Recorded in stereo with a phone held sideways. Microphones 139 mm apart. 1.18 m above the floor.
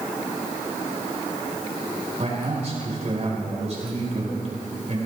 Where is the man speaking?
50° right (ahead or behind), 4.5 m.